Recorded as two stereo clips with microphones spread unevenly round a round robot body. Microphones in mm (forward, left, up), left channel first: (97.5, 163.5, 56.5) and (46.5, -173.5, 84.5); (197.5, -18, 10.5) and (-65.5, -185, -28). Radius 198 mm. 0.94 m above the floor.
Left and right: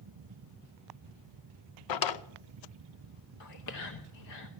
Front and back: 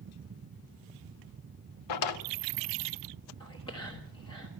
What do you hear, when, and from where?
1.9 s a drawer: 55° left, 0.8 m
3.4 s whispering: 115° left, 1.2 m